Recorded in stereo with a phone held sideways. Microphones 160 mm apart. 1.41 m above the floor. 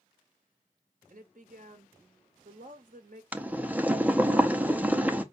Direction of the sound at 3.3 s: 10° right (ahead or behind).